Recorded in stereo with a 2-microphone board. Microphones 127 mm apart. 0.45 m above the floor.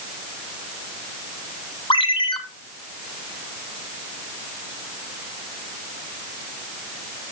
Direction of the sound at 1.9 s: 40° left (ahead or behind).